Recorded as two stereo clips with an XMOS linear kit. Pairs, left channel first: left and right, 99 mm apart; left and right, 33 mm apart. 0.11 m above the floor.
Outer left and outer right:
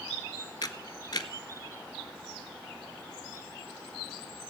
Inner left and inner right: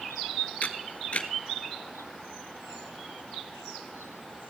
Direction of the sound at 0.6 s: 45° left (ahead or behind).